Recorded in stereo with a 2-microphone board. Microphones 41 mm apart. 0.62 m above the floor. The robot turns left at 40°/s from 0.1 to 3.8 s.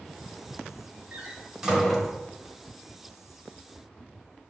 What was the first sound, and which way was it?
A door slam, 35° right (ahead or behind).